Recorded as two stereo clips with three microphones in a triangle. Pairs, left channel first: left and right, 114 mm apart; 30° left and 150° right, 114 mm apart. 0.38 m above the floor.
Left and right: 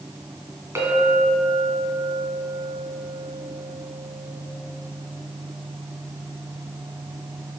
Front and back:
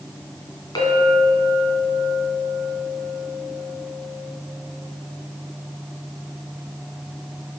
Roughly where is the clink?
Ahead.